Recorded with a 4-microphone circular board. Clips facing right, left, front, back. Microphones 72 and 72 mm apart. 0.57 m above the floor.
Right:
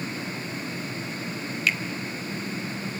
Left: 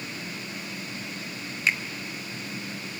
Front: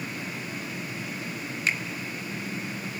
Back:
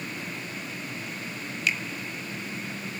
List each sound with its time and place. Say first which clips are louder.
1.7 s a finger snap: left 1 dB, even; 40° left, 1.1 m